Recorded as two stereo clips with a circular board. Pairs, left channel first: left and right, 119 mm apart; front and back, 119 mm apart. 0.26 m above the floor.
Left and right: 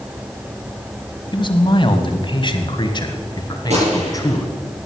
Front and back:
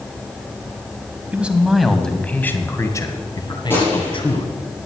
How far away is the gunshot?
About 8.5 m.